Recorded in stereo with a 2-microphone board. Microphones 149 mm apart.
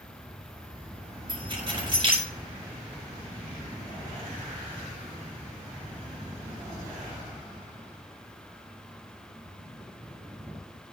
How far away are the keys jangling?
About 4.5 m.